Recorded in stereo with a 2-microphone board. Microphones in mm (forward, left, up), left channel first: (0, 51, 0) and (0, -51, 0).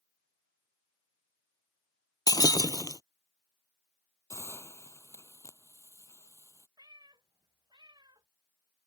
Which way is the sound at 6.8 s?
45° right (ahead or behind).